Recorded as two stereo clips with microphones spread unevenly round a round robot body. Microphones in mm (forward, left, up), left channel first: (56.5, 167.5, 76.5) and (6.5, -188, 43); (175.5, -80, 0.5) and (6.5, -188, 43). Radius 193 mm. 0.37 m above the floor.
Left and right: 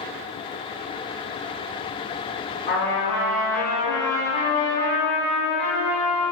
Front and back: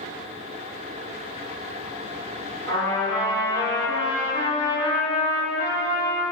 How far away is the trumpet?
About 1.0 m.